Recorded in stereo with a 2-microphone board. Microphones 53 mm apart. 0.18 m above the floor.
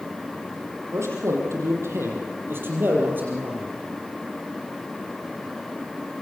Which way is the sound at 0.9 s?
55° right (ahead or behind).